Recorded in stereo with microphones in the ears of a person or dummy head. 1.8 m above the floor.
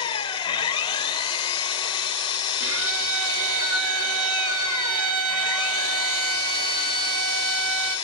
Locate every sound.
0.0 s an engine running: 20° left (ahead or behind), 0.8 m
2.6 s a violin: 50° right (ahead or behind), 1.8 m